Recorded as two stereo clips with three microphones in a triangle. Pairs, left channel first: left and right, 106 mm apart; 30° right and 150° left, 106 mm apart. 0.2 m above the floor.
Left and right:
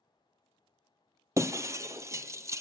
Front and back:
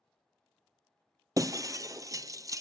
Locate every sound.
1.4 s breaking glass: 150° right, 0.7 m